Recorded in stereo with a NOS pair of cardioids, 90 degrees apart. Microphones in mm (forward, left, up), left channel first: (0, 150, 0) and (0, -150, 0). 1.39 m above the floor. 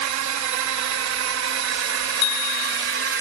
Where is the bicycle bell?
65° left.